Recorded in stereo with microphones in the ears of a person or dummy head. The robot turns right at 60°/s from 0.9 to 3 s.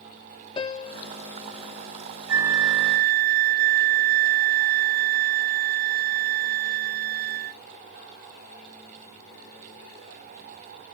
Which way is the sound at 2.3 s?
95° right.